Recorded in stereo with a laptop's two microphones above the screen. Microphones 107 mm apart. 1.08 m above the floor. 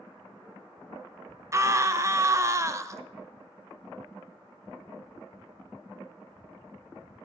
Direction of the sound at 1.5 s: 30° right (ahead or behind).